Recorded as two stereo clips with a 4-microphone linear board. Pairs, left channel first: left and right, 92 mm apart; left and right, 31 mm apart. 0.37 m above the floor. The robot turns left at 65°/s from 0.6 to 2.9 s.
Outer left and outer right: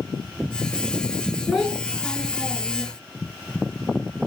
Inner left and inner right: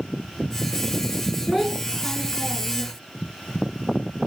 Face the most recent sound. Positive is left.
turn(degrees=90)